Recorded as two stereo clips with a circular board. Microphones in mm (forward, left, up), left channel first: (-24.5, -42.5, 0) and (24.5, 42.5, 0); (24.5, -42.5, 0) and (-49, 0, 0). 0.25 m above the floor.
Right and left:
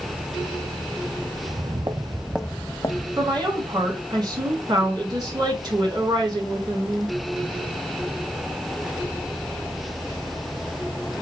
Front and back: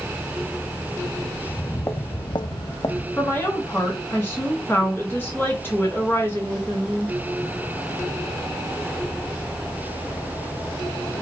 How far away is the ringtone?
No ringtone in this recording.